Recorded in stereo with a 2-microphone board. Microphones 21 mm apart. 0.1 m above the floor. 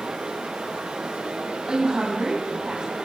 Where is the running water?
75° right (ahead or behind), 8 m.